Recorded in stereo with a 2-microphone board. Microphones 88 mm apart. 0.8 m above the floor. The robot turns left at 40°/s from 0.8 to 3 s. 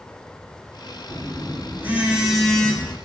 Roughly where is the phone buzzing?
Behind right.